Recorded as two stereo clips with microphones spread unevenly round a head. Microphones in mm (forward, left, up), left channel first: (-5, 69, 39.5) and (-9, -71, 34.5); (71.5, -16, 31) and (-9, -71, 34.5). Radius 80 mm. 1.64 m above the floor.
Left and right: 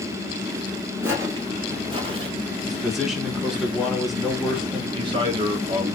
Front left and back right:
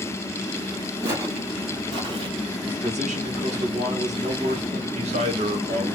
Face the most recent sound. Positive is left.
turn(degrees=-145)